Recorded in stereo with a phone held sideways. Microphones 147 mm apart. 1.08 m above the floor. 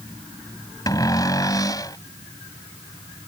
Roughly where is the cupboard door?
Left.